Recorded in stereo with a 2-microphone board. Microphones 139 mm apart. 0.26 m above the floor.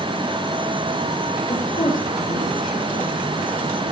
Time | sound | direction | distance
1.5 | a woman speaking | 75° left (ahead or behind) | 7 m